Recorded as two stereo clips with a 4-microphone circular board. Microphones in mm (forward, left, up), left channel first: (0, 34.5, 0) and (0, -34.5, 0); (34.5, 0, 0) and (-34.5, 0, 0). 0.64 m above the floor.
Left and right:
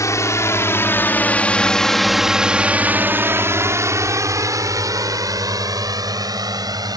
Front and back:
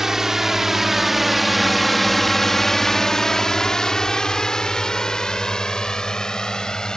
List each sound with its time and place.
0.0 s a drone: 100° left; by 7.0 s 80° right